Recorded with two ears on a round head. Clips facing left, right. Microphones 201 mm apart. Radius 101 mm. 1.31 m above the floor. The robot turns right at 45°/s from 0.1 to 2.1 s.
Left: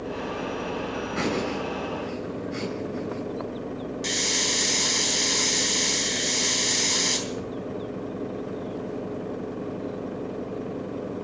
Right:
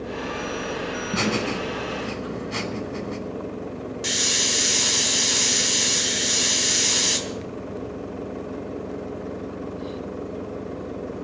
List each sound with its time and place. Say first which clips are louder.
1.1 s laughter: right 2 dB; 55° right (ahead or behind), 5 m; by 3.2 s 85° right, 5 m
4.0 s a hiss: even; 10° right (ahead or behind), 3 m